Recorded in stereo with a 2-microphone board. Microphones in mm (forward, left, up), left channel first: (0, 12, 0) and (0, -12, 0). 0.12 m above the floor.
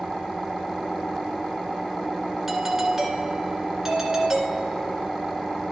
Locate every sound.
2.5 s a doorbell: 15° right (ahead or behind), 1.8 m